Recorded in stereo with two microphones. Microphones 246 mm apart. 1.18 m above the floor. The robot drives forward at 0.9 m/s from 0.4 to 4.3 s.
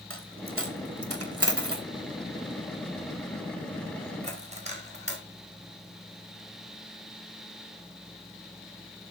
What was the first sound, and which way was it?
A dropped coin, 60° right (ahead or behind).